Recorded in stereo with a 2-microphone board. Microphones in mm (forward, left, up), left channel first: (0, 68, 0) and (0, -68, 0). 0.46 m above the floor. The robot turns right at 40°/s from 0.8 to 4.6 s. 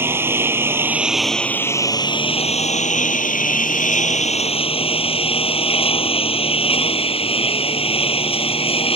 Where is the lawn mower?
15° right; by 9.0 s 135° left.